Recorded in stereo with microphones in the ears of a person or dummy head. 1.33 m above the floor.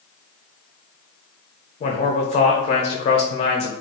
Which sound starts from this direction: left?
A man speaking, at 1.8 s.